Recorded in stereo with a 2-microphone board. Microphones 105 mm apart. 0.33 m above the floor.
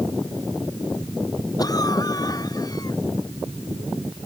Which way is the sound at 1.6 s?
35° left (ahead or behind).